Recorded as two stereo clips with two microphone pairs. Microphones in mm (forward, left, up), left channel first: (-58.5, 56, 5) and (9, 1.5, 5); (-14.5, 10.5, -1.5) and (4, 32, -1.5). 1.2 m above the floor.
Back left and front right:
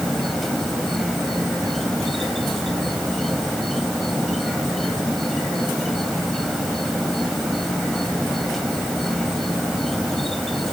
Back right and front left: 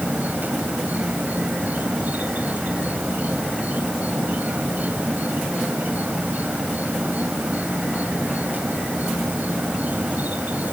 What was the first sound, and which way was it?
An insect, 55° left.